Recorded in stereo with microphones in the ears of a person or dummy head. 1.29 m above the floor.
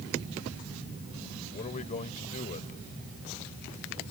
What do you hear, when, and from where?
1.5 s a man speaking: 40° left (ahead or behind)